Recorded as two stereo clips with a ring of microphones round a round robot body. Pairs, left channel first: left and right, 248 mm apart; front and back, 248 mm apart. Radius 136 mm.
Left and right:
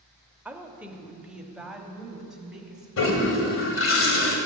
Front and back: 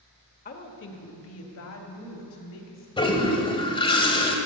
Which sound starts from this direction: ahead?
A woman speaking, at 0.5 s.